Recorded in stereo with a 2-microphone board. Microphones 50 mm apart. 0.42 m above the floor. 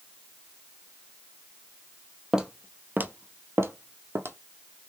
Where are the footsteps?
15° right (ahead or behind), 0.7 m; by 4.4 s 55° right (ahead or behind), 0.9 m.